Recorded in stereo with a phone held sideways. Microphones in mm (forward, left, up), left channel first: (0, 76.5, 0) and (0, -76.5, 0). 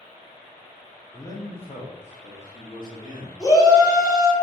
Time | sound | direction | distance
1.1 | a man speaking | 15° left (ahead or behind) | 0.5 m
3.4 | a shout | 25° left (ahead or behind) | 1.2 m